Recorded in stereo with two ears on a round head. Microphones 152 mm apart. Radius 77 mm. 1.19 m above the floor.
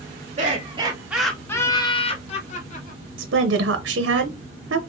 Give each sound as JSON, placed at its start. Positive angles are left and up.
{"t": 0.4, "sound": "laughter", "side_deg": -45, "distance_m": 0.8}
{"t": 3.2, "sound": "a woman speaking", "side_deg": -75, "distance_m": 0.6}